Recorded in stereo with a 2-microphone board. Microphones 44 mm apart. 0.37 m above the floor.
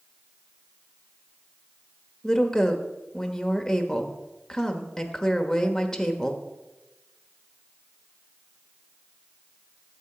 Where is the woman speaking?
15° left (ahead or behind), 1.2 m.